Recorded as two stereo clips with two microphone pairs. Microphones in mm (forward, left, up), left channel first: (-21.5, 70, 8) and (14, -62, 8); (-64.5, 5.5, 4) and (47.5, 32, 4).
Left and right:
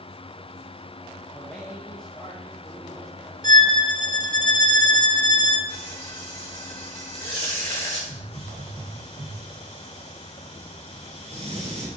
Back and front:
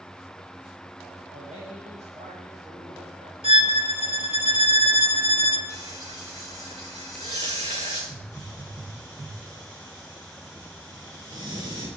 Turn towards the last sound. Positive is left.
turn(degrees=-40)